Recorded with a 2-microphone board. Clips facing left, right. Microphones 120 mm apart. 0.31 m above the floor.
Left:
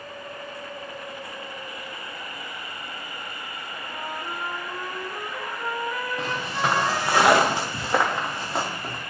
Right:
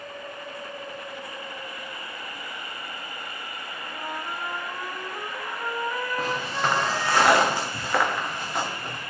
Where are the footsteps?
5° right (ahead or behind), 1.9 m; by 9.0 s 35° left (ahead or behind), 4 m.